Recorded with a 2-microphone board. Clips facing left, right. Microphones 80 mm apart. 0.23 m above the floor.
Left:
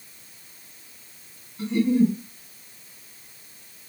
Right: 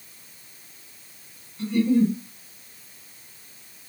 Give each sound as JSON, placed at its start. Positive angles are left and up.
{"t": 1.6, "sound": "a giggle", "side_deg": 20, "distance_m": 2.0}